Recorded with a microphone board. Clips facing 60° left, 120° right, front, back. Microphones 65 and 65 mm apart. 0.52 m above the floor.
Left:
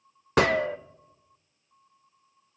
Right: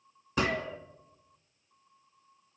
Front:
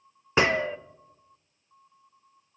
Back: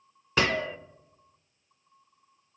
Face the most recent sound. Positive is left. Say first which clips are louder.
# left 8 dB, front 3 dB
turn(degrees=65)